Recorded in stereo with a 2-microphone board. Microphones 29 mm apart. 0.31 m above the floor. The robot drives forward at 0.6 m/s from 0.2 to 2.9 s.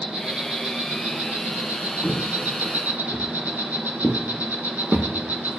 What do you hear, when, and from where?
0.0 s an insect: 35° right (ahead or behind), 1.7 m; by 5.6 s 75° right (ahead or behind), 1.1 m
2.0 s footsteps: centre (ahead or behind), 3.5 m; by 5.6 s 65° right (ahead or behind), 1.2 m